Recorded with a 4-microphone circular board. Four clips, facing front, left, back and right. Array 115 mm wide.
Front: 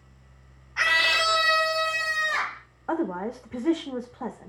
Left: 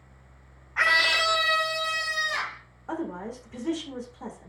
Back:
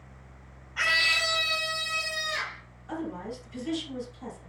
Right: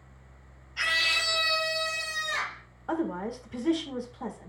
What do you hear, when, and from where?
0.8 s a scream: 80° left, 0.8 m; by 2.6 s 10° left, 2.5 m
2.9 s a woman speaking: 10° right, 1.5 m